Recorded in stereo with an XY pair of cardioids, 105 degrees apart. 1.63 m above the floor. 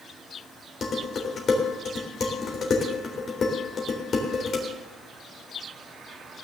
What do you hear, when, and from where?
0.8 s dishes clattering: 45° left, 3.5 m